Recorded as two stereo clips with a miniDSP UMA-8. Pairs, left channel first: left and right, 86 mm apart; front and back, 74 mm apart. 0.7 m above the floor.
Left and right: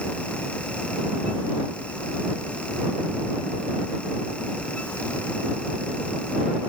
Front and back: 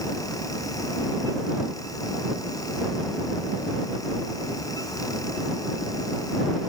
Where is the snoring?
No snoring in this recording.